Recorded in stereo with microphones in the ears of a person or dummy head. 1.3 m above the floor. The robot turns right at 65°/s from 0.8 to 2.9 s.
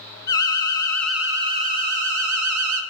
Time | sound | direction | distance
0.3 | an alarm | 160° left | 1.4 m